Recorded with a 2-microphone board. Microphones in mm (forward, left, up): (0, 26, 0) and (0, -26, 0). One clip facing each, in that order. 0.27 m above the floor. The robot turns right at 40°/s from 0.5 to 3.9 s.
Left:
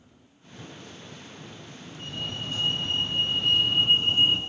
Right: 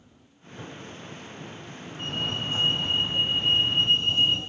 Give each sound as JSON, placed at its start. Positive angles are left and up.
{"t": 2.0, "sound": "a fire alarm", "azimuth_deg": -65, "distance_m": 4.0}